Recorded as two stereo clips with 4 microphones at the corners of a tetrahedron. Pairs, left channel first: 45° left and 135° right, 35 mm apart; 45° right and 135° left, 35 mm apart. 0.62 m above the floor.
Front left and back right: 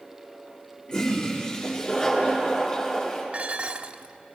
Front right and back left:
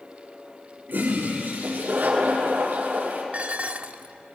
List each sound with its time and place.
0.9 s a toilet flushing: 110° left, 6 m
3.3 s dishes clattering: 175° left, 0.7 m